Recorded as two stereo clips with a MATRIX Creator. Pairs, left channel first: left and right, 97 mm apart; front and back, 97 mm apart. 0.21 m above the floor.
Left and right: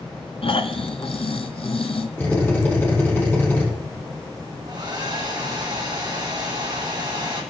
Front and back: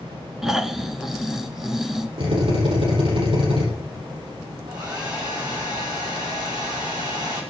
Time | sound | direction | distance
0.4 | snoring | 95° left | 0.8 m
2.2 | a drill | 160° left | 7 m
4.7 | a hair dryer | 135° right | 4 m